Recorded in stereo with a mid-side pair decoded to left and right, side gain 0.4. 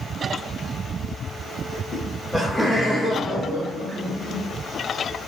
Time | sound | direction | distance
1.9 | laughter | 35° left | 0.5 m